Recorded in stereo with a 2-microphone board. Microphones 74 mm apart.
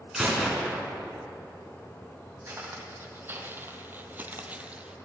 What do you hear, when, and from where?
0.1 s a gunshot: 5° right (ahead or behind), 2.5 m
2.5 s footsteps: 30° right (ahead or behind), 1.5 m; by 5.0 s 15° right (ahead or behind), 1.0 m